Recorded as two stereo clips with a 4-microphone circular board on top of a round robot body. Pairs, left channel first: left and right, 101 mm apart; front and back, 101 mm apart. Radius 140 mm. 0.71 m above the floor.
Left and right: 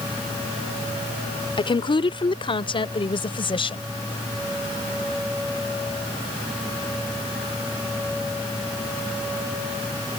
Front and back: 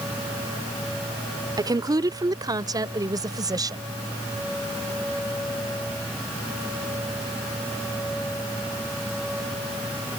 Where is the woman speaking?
130° left; by 3.8 s 125° left.